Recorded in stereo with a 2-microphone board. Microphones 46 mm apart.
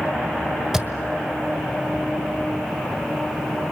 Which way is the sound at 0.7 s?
5° right (ahead or behind).